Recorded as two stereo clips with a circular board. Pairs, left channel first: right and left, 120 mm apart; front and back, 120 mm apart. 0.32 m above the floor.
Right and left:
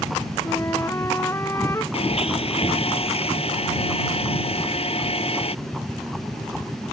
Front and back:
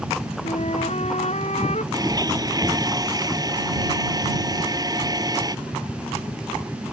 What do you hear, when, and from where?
0.4 s a flute: 25° right
1.9 s a blender: 125° right